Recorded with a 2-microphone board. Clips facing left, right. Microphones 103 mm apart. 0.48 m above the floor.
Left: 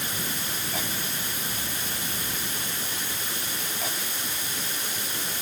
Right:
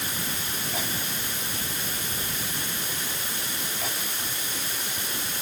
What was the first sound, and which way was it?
Only background noise.